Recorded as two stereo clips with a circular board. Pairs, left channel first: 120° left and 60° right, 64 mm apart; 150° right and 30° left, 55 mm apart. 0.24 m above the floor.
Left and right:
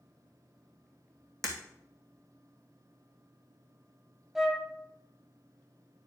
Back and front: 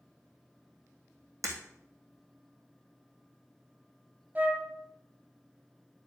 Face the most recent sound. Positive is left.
turn(degrees=20)